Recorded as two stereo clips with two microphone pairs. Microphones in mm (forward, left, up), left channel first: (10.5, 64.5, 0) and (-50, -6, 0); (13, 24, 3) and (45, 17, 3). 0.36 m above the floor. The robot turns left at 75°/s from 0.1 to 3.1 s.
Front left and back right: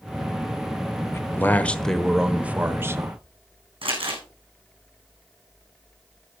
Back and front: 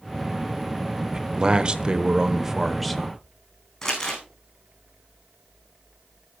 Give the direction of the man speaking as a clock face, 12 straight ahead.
11 o'clock.